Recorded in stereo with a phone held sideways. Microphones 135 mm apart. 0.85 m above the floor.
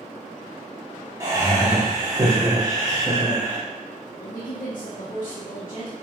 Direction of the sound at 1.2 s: 20° right (ahead or behind).